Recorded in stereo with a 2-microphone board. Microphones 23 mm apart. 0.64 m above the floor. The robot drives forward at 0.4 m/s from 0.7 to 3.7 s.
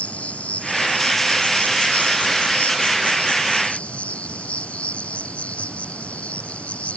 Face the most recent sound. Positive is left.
turn(degrees=70)  # may be behind; listen again after turning